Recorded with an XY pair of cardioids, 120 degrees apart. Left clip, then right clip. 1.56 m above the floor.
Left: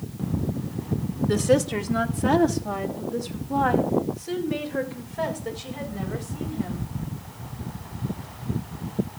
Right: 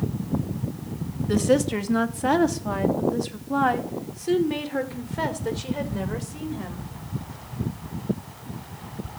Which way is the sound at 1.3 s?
Straight ahead.